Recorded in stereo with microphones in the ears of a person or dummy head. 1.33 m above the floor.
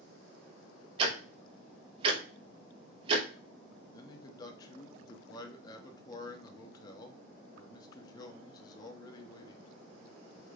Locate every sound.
1.0 s ticking: 35° right (ahead or behind), 0.6 m
3.9 s a man speaking: 20° left (ahead or behind), 0.7 m